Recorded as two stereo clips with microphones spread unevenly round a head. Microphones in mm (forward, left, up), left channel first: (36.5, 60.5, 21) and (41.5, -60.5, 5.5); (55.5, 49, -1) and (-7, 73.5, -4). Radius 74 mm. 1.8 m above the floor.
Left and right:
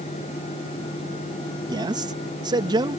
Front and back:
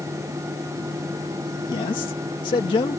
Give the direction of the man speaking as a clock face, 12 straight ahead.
1 o'clock.